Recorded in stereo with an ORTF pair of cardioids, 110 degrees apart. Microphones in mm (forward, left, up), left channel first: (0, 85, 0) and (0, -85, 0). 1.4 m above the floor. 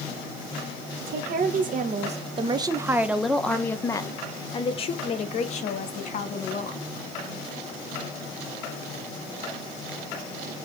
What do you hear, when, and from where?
1.0 s a woman speaking: 65° right, 1.6 m; by 6.8 s 50° left, 3 m